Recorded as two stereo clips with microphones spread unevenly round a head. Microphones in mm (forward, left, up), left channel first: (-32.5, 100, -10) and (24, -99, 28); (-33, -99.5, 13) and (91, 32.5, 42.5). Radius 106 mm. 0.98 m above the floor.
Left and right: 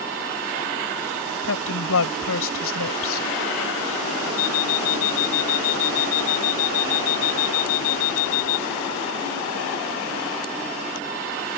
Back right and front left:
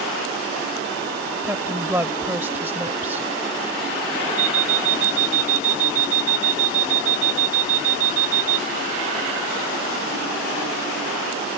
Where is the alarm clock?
85° left.